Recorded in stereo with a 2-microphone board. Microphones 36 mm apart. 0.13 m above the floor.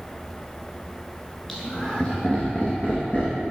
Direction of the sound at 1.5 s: 10° left (ahead or behind).